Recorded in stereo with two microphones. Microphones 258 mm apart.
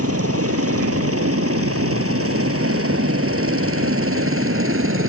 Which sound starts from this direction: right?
A helicopter, at 0.0 s.